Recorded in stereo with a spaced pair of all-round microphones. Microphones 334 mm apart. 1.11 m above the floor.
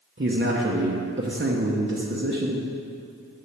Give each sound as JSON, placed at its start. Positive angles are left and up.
{"t": 0.2, "sound": "a man speaking", "side_deg": -35, "distance_m": 0.9}